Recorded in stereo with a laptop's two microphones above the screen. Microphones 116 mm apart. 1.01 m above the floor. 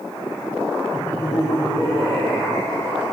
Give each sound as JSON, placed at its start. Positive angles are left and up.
{"t": 0.9, "sound": "laughter", "side_deg": 20, "distance_m": 1.1}